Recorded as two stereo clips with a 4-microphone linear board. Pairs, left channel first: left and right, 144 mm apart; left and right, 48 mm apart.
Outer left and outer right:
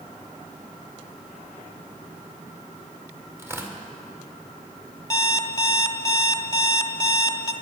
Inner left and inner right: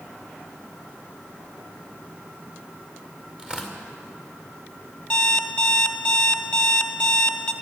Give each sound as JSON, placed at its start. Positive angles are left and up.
{"t": 3.4, "sound": "tearing paper", "side_deg": -15, "distance_m": 2.0}
{"t": 5.1, "sound": "an alarm clock", "side_deg": 25, "distance_m": 0.9}